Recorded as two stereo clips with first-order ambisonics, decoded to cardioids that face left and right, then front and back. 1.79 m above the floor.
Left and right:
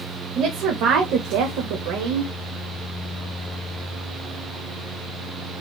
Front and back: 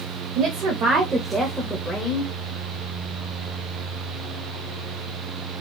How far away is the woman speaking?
About 1.1 m.